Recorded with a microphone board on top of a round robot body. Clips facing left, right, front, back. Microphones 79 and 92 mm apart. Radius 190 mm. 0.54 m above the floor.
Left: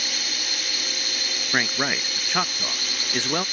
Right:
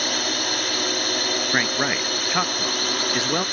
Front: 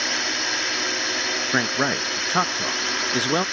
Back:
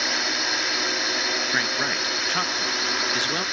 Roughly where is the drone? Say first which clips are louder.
Right 8 dB, even; right.